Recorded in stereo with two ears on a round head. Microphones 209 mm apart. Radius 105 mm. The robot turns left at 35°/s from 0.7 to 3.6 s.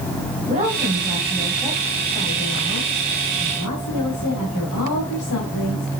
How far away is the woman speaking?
About 3 m.